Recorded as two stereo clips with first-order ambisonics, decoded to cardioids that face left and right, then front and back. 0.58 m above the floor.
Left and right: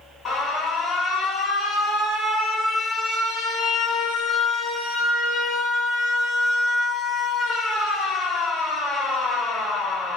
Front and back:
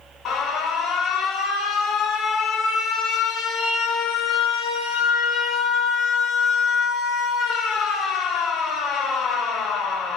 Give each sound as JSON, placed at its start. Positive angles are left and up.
{"t": 0.2, "sound": "an alarm", "azimuth_deg": 35, "distance_m": 2.5}